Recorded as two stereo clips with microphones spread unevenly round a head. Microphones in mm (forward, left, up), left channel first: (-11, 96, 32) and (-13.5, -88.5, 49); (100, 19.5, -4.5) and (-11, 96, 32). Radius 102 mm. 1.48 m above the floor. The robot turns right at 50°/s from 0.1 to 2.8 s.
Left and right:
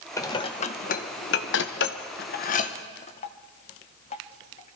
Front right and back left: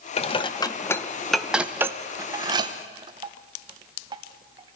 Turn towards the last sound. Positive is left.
turn(degrees=145)